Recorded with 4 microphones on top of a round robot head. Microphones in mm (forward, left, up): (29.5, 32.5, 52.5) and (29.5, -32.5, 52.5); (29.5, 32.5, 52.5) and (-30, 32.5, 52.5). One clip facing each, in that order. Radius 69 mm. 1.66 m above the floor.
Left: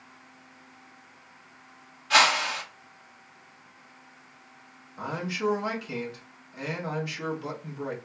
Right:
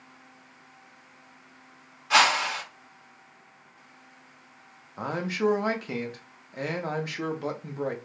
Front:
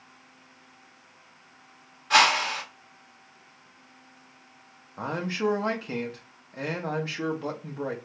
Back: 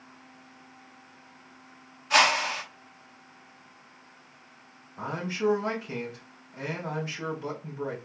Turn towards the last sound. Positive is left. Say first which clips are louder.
# right 3 dB, front 1 dB
turn(degrees=-60)